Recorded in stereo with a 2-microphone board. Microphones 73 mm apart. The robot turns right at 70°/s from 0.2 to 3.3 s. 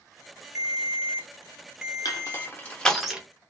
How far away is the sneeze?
I don't hear a sneeze.